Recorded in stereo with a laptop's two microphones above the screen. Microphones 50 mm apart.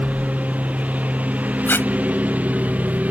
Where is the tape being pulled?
45° left (ahead or behind).